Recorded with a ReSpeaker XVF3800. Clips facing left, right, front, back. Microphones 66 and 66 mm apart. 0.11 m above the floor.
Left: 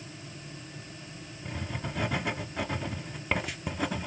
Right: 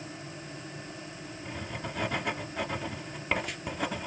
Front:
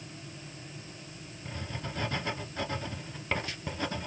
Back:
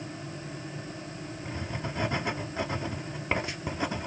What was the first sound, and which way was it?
Writing, 175° left.